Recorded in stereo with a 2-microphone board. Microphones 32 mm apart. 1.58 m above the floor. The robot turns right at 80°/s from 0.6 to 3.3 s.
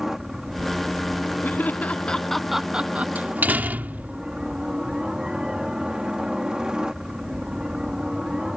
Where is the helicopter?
15° right; by 8.6 s 160° right.